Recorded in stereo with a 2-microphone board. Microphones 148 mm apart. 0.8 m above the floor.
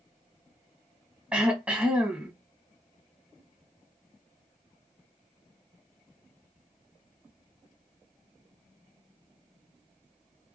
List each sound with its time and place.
1.3 s throat clearing: 5° right (ahead or behind), 1.2 m